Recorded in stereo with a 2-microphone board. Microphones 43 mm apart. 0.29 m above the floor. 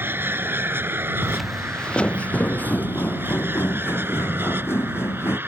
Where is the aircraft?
55° right (ahead or behind); by 5.5 s 60° right (ahead or behind).